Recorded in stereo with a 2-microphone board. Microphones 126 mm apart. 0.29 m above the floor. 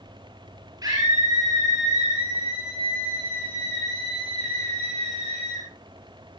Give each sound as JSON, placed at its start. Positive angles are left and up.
{"t": 0.8, "sound": "a scream", "side_deg": -30, "distance_m": 5.5}